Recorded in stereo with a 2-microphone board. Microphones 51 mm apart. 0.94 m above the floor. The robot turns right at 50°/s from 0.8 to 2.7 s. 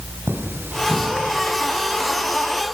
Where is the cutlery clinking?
50° right (ahead or behind), 4 m; by 1.1 s 65° right (ahead or behind), 4 m.